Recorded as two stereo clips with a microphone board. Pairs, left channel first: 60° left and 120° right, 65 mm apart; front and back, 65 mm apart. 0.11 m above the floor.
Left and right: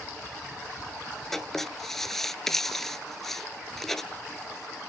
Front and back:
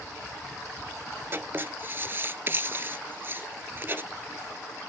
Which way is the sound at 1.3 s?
140° left.